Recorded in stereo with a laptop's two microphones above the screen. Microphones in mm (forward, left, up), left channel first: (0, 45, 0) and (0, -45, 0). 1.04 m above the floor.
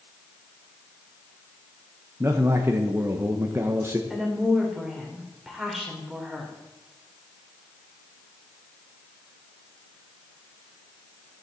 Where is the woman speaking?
5° right (ahead or behind), 3 m.